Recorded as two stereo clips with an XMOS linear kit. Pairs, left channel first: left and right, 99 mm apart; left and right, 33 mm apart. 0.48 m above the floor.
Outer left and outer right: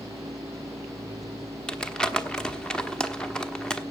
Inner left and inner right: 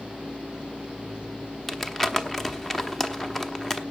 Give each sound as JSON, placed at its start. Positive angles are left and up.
{"t": 1.7, "sound": "crumpling", "side_deg": 10, "distance_m": 1.0}